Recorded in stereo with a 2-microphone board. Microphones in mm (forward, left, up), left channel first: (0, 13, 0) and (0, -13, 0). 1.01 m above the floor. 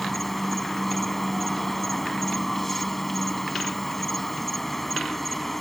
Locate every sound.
0.0 s an insect: 10° left (ahead or behind)